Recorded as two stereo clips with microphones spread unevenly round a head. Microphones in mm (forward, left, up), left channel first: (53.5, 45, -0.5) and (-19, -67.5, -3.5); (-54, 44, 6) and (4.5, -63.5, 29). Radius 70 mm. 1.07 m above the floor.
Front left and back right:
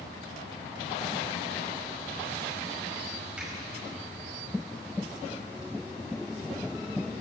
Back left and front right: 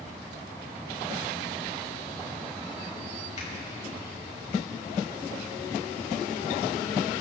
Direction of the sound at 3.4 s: 155° left.